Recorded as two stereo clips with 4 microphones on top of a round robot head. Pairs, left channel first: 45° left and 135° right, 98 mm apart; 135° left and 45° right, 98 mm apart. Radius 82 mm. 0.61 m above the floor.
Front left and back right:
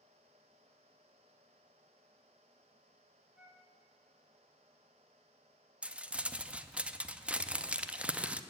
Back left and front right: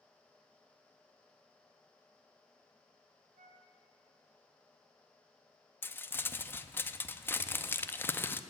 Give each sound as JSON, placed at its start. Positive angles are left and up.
{"t": 3.4, "sound": "a flute", "azimuth_deg": -50, "distance_m": 1.5}
{"t": 5.8, "sound": "crumpling", "azimuth_deg": 165, "distance_m": 0.6}